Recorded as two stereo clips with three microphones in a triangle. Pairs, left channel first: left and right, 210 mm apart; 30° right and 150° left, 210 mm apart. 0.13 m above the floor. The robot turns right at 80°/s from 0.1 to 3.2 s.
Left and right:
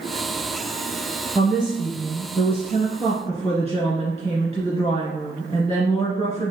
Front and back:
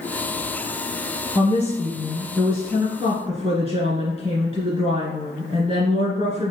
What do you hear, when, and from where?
1.4 s a woman speaking: 15° right, 1.8 m; by 6.5 s 130° left, 1.8 m